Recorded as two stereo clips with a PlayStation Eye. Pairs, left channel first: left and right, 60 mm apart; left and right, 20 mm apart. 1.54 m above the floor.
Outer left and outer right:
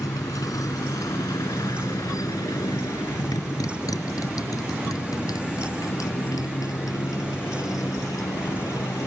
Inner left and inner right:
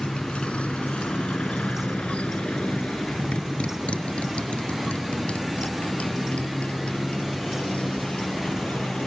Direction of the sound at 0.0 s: 80° left.